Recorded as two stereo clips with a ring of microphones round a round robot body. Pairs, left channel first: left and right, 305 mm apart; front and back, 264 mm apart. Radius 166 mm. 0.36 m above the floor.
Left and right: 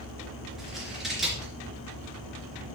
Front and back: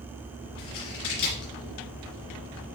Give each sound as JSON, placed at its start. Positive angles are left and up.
{"t": 0.6, "sound": "scissors", "azimuth_deg": 0, "distance_m": 3.5}